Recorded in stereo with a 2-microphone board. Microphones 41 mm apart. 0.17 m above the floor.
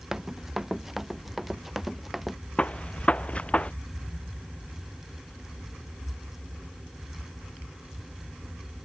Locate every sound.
0.1 s running footsteps: 10° right (ahead or behind); by 2.4 s 5° right (ahead or behind)
2.6 s a gunshot: 30° left (ahead or behind)